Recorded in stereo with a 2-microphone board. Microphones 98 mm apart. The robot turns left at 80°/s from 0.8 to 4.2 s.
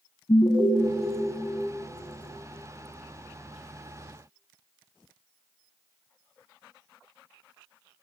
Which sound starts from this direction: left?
An alarm, at 0.3 s.